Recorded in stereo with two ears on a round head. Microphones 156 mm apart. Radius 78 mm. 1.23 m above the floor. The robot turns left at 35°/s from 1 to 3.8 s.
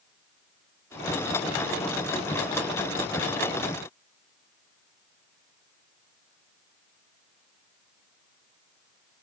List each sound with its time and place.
Only background noise.